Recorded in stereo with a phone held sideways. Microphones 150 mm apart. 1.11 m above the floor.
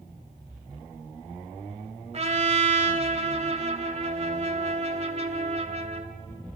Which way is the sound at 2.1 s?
45° right (ahead or behind).